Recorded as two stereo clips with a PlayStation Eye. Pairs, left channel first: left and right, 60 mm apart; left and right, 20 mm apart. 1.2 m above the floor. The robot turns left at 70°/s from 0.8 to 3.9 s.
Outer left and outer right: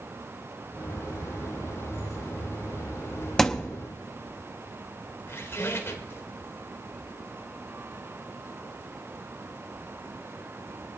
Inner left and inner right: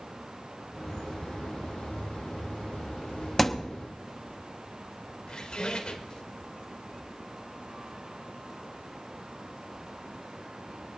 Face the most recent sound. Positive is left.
turn(degrees=40)  # may be behind; listen again after turning